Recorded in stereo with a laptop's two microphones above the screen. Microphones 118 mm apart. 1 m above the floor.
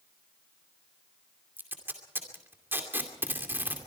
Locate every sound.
1.6 s tape being pulled: 20° right (ahead or behind), 2.5 m